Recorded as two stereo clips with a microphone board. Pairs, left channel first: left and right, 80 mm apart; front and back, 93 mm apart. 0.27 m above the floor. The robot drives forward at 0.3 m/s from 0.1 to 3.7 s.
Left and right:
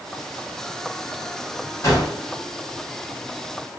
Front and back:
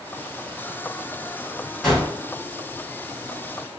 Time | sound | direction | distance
1.8 | a gunshot | 90° left | 1.6 m